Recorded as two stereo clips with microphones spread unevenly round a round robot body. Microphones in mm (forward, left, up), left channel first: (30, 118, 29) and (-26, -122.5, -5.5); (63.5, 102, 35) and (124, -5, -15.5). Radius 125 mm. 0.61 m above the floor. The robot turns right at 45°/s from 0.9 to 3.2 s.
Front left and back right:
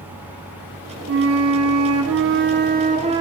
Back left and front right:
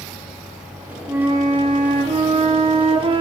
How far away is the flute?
About 0.9 m.